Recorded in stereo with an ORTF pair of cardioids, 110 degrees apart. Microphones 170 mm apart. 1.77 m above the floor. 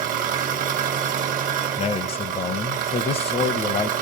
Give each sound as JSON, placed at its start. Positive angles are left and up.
{"t": 0.0, "sound": "an engine running", "azimuth_deg": -60, "distance_m": 1.1}
{"t": 1.8, "sound": "a man speaking", "azimuth_deg": 35, "distance_m": 0.6}